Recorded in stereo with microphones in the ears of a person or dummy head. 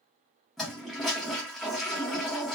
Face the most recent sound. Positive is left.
turn(degrees=10)  # may be behind; listen again after turning